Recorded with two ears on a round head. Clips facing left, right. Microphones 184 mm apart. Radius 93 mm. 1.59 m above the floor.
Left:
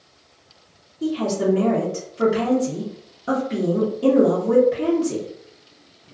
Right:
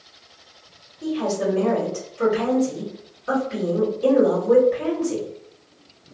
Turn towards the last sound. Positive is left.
turn(degrees=65)  # may be behind; listen again after turning